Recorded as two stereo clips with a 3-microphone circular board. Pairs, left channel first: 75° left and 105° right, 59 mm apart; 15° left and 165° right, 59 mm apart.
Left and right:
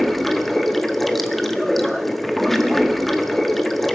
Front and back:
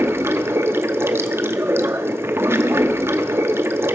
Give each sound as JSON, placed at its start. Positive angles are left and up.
{"t": 0.0, "sound": "running water", "azimuth_deg": 160, "distance_m": 0.9}